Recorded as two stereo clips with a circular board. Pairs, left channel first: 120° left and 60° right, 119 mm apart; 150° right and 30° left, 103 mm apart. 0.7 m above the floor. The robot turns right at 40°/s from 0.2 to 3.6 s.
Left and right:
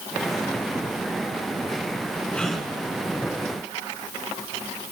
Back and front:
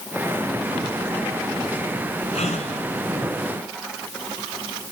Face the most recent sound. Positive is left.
turn(degrees=-110)